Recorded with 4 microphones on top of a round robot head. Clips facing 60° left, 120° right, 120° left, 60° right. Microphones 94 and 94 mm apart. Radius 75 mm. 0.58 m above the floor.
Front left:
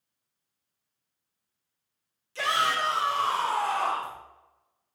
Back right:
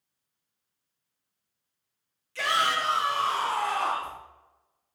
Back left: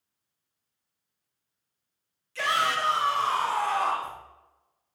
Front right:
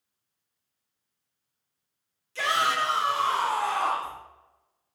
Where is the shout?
Straight ahead, 2.5 m; by 4.2 s 15° left, 3 m.